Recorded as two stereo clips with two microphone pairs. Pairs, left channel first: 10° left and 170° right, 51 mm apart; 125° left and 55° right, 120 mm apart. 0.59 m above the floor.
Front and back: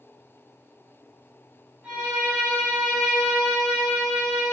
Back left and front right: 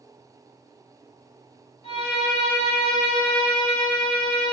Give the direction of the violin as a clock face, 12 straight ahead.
8 o'clock.